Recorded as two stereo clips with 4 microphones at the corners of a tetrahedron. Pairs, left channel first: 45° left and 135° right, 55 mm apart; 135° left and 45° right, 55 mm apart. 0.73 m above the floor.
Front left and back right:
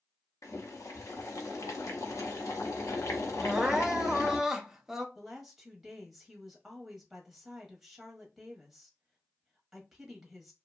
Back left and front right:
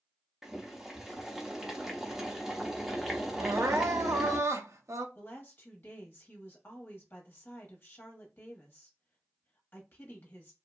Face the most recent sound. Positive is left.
turn(degrees=140)